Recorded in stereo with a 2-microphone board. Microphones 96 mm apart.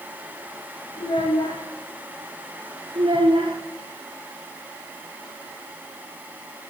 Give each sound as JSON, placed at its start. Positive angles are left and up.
{"t": 1.0, "sound": "a child speaking", "side_deg": 60, "distance_m": 3.0}
{"t": 3.0, "sound": "a child speaking", "side_deg": -60, "distance_m": 3.5}